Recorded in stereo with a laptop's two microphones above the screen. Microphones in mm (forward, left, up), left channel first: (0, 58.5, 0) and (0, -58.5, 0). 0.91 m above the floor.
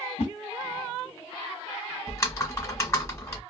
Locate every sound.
0.2 s a whoosh: 65° left (ahead or behind), 1.7 m
2.1 s typing on a keyboard: 25° left (ahead or behind), 1.2 m